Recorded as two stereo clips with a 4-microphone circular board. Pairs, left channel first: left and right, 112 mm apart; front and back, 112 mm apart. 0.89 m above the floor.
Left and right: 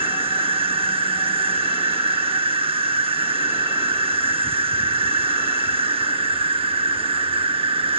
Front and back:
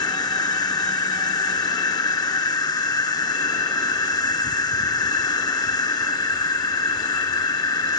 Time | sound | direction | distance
0.0 | an insect | 55° right | ?